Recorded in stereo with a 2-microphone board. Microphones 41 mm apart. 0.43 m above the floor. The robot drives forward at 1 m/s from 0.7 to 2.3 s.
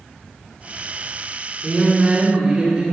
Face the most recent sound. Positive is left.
turn(degrees=-25)  # may be behind; listen again after turning